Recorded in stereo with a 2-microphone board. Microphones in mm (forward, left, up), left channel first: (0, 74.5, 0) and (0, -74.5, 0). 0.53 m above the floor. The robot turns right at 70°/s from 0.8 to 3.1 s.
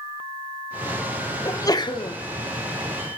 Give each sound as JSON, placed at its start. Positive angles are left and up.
{"t": 1.4, "sound": "a sneeze", "azimuth_deg": 30, "distance_m": 0.8}